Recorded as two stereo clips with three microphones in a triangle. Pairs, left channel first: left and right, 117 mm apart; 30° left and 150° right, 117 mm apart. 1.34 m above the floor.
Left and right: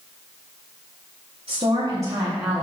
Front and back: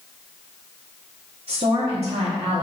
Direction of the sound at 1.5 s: 130° right.